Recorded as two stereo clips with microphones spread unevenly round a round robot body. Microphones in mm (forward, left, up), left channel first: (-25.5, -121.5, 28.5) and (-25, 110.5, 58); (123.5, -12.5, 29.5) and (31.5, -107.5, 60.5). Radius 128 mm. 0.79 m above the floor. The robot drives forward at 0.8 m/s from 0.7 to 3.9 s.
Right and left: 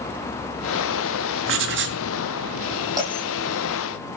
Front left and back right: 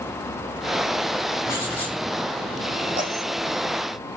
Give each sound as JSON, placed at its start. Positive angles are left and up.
{"t": 1.5, "sound": "writing", "azimuth_deg": 125, "distance_m": 2.5}
{"t": 3.0, "sound": "a bell", "azimuth_deg": 165, "distance_m": 9.0}